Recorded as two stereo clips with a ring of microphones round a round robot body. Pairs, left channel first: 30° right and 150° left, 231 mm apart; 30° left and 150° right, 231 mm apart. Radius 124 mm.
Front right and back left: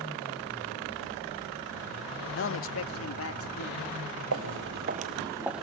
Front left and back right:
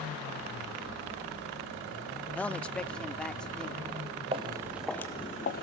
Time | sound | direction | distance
2.4 | a man speaking | 55° right | 0.6 m
4.3 | footsteps | 150° left | 1.2 m